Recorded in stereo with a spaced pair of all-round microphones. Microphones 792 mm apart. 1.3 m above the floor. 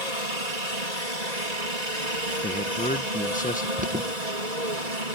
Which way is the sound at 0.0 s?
55° right (ahead or behind).